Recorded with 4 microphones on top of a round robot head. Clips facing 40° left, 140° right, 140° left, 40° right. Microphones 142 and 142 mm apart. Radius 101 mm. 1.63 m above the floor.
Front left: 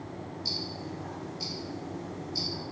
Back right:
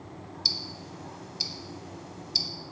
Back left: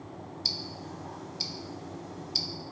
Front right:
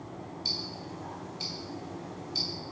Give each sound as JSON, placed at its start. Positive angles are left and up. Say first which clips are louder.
{"t": 0.5, "sound": "ticking", "louder": "front left 4 dB, even", "azimuth_deg": -170, "distance_m": 0.6}